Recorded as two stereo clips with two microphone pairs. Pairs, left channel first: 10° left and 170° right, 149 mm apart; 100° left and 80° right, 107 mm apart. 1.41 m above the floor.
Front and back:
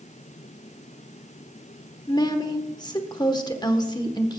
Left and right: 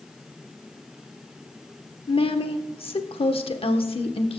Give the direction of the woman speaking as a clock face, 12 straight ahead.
10 o'clock.